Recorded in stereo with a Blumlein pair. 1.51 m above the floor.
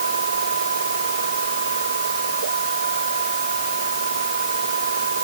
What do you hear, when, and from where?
0.0 s a machine running: 70° right